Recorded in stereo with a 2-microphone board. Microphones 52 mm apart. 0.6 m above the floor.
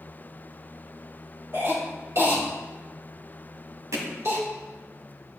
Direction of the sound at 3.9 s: 85° right.